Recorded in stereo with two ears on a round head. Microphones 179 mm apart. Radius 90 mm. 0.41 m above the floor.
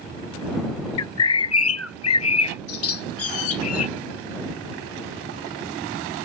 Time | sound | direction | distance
1.0 | a bird | 75° left (ahead or behind) | ?